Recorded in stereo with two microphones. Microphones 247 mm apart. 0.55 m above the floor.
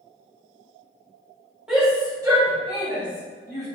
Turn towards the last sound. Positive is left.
turn(degrees=-40)  # may be behind; listen again after turning